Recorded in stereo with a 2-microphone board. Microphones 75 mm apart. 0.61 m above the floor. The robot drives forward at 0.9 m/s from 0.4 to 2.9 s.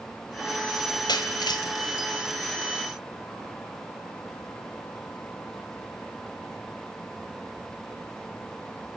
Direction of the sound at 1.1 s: 80° left.